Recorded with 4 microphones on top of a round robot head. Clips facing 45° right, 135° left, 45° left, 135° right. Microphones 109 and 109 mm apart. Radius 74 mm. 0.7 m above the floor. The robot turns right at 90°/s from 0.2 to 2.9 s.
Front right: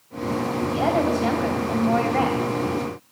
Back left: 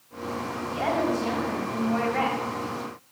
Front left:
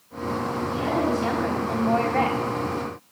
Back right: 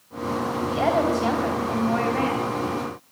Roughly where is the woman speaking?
Behind right.